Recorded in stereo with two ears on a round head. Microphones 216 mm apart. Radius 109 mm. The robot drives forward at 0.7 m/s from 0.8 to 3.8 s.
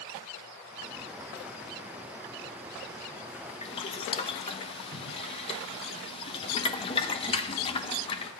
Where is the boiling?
25° left (ahead or behind), 0.8 m; by 8.3 s 20° left (ahead or behind), 0.9 m.